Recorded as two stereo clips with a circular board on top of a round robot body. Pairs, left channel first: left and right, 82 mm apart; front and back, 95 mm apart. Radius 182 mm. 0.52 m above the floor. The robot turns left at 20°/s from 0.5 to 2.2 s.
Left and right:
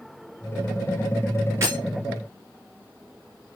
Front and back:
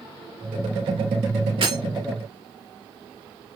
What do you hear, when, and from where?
1.6 s breaking glass: 150° right, 5 m; by 1.8 s 155° right, 5 m